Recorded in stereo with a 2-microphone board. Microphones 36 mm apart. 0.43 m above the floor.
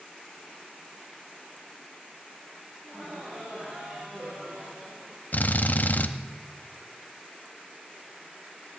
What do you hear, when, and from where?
2.8 s laughter: 35° right (ahead or behind), 3 m; by 5.2 s 40° right (ahead or behind), 1.4 m
5.3 s a drill: 50° left (ahead or behind), 0.7 m